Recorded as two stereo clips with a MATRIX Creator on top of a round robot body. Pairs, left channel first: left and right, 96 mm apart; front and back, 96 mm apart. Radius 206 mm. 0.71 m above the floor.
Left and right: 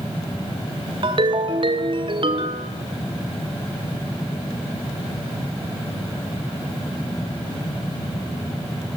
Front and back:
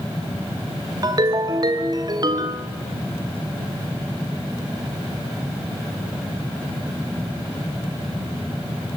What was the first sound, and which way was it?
A ringtone, 130° right.